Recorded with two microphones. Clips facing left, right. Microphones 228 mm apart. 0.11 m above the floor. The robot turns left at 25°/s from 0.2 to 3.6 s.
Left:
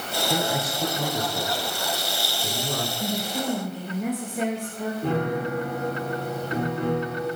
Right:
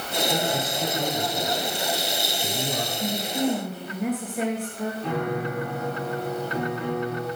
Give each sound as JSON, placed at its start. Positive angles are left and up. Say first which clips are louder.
{"t": 0.3, "sound": "a man speaking", "louder": "left 2 dB", "side_deg": 15, "distance_m": 1.6}
{"t": 3.0, "sound": "a woman speaking", "louder": "right 5 dB", "side_deg": 10, "distance_m": 1.3}
{"t": 5.0, "sound": "a piano", "louder": "left 3 dB", "side_deg": 45, "distance_m": 4.0}